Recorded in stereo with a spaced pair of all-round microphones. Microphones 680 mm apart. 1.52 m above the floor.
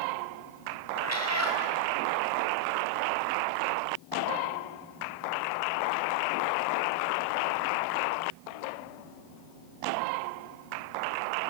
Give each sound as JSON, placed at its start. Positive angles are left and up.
{"t": 0.9, "sound": "a cat meowing", "side_deg": 20, "distance_m": 3.5}